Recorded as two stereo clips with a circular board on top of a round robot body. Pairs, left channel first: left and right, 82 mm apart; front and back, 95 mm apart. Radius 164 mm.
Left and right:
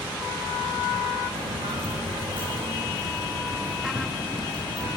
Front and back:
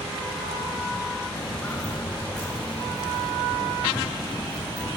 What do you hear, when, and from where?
1.4 s footsteps: 70° right, 2.5 m; by 4.9 s 105° right, 5 m